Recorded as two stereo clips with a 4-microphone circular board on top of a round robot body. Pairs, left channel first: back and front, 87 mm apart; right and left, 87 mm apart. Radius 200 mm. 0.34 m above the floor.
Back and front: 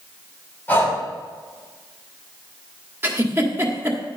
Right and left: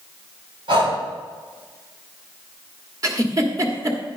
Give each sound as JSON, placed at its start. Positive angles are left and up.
{"t": 0.7, "sound": "breathing", "azimuth_deg": 115, "distance_m": 5.0}
{"t": 3.0, "sound": "a giggle", "azimuth_deg": 55, "distance_m": 2.0}